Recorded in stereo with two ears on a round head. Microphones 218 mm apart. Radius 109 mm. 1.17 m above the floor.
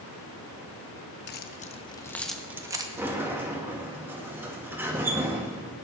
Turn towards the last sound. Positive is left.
turn(degrees=-10)  # may be behind; listen again after turning